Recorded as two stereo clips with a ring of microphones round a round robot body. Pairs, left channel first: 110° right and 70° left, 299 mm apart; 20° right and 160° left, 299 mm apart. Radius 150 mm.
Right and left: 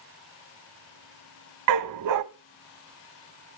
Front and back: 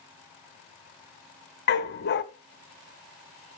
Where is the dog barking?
35° left, 0.6 m.